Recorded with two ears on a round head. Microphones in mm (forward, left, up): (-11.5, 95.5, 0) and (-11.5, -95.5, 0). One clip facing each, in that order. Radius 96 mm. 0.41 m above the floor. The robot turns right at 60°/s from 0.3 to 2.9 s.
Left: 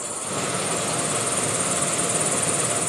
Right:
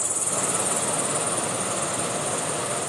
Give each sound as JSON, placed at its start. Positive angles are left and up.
{"t": 0.0, "sound": "an insect", "azimuth_deg": -40, "distance_m": 4.5}